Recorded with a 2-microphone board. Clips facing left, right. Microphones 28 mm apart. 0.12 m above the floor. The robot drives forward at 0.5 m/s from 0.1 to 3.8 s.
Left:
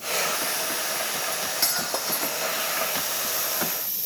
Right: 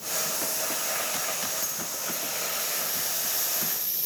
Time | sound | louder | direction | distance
1.3 | cutlery clinking | left 5 dB | 80° left | ?